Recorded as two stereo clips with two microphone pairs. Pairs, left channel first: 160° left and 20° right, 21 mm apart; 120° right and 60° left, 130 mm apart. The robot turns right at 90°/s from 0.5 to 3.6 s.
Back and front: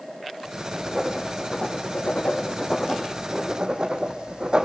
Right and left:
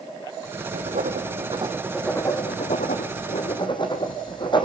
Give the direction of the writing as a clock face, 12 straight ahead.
11 o'clock.